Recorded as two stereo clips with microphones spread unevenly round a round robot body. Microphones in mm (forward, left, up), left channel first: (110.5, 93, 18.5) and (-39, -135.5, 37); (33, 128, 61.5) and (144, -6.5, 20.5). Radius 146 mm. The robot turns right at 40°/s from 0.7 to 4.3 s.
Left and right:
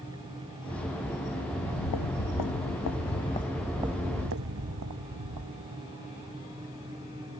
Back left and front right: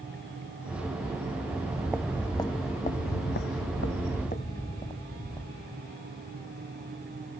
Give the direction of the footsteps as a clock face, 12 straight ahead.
12 o'clock.